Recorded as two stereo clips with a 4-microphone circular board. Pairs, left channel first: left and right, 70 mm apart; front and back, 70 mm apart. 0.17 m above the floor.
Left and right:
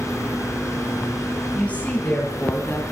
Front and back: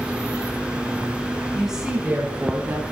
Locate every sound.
1.6 s a woman speaking: 95° left, 1.6 m; by 2.8 s 135° left, 2.5 m